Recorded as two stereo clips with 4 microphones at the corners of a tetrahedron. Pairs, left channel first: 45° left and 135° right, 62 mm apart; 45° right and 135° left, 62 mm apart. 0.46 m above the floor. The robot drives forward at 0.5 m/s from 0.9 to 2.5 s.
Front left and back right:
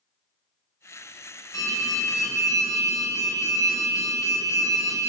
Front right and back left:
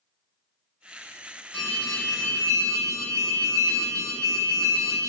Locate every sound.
1.5 s an alarm: 25° left, 6 m; by 5.1 s 30° left, 6 m